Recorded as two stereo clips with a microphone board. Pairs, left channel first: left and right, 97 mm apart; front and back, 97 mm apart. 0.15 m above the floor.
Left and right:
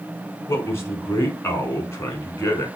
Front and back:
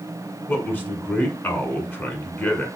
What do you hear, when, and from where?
0.5 s a man speaking: 55° left, 1.3 m